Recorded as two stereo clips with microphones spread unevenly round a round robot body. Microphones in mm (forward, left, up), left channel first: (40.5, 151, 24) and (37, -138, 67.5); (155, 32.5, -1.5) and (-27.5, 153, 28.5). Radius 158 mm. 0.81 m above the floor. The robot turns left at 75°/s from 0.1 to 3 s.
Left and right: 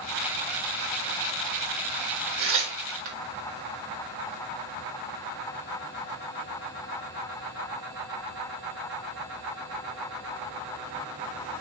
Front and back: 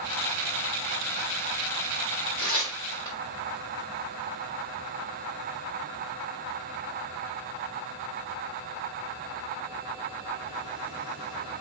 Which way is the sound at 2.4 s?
80° right.